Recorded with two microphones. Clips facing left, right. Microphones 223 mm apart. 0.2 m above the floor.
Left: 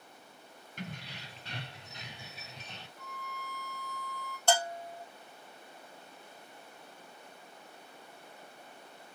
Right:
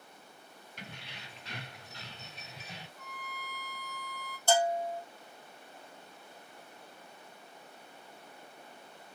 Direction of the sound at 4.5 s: 75° left (ahead or behind).